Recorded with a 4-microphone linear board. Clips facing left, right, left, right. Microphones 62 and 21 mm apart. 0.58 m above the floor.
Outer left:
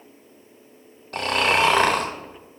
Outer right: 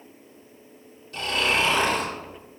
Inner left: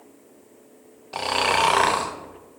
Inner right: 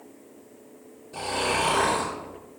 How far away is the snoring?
About 0.5 m.